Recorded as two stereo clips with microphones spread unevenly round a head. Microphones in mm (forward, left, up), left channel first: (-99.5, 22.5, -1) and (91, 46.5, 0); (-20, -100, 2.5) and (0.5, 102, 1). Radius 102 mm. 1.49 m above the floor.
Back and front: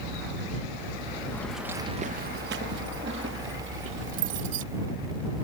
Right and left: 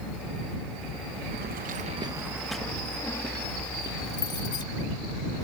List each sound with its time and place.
1.3 s keys jangling: 110° left; by 4.6 s 25° right